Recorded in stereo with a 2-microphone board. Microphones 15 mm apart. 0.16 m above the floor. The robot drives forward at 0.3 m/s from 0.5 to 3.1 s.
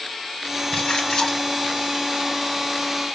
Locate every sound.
0.7 s a splash: 55° left (ahead or behind), 2.5 m